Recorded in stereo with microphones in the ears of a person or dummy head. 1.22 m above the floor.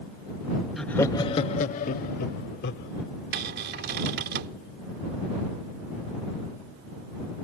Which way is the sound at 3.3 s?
55° right (ahead or behind).